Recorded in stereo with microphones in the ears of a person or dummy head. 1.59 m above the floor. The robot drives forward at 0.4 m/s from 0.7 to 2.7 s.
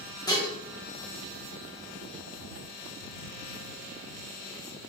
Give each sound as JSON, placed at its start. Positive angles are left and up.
{"t": 0.3, "sound": "dishes clattering", "side_deg": 20, "distance_m": 1.0}